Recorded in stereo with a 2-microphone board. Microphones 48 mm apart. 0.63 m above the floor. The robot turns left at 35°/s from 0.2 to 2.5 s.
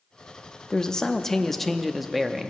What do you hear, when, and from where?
0.7 s a man speaking: 15° left (ahead or behind), 0.6 m; by 2.5 s 5° right (ahead or behind), 0.6 m